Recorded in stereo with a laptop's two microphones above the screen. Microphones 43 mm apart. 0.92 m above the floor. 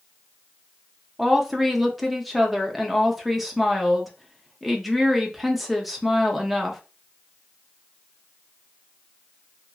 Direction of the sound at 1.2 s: 5° right (ahead or behind).